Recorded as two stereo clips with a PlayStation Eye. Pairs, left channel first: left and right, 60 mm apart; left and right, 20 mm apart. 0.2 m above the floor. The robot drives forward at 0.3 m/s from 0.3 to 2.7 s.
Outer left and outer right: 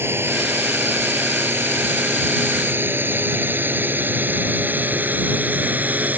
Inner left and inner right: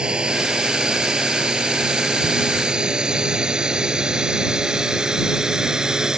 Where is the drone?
40° right (ahead or behind); by 6.2 s 30° right (ahead or behind).